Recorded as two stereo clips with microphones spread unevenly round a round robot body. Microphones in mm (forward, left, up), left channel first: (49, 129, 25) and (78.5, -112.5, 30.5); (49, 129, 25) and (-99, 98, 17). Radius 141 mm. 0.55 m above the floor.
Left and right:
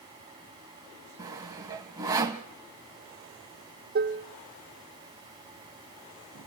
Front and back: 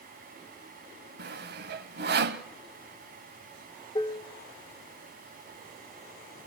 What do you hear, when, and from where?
1.2 s sawing: 160° right, 0.9 m
4.0 s dishes clattering: 50° right, 0.7 m